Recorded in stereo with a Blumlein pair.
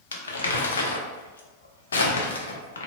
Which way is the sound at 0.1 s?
70° left.